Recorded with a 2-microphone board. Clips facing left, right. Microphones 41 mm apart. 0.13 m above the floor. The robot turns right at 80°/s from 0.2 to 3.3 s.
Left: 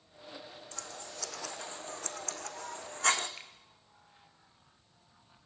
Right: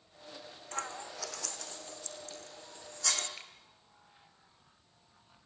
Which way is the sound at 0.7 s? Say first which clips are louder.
Right 8 dB; 45° right (ahead or behind).